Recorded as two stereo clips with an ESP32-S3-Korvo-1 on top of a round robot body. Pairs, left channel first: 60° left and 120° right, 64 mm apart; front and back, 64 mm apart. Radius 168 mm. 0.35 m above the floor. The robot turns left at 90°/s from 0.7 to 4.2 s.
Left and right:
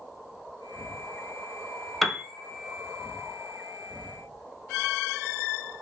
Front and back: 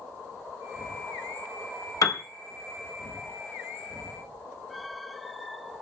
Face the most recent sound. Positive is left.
turn(degrees=135)